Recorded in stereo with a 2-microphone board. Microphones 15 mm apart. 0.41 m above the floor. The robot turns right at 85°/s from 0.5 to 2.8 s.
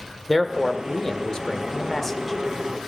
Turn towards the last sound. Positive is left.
turn(degrees=-160)